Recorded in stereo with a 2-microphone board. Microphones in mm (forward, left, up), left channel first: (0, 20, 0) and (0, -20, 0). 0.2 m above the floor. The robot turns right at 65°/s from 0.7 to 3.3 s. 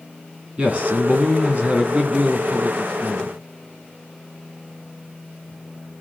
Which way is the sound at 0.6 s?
130° right.